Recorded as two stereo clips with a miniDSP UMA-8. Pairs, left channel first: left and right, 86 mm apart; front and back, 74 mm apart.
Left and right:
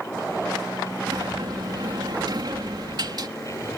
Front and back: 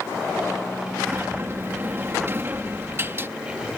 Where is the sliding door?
125° right.